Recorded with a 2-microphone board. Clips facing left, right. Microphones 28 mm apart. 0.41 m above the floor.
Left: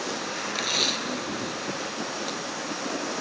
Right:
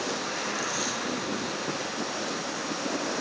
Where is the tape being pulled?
75° left (ahead or behind).